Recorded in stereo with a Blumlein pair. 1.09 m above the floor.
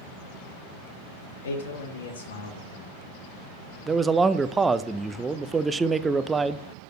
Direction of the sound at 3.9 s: 10° right.